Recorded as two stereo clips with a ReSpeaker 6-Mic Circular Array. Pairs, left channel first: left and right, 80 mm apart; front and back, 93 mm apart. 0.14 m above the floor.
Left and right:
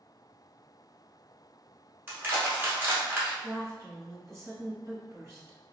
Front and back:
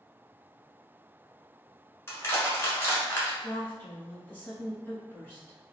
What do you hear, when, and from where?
2.1 s crushing: 45° right, 1.1 m
3.4 s a woman speaking: 60° right, 1.4 m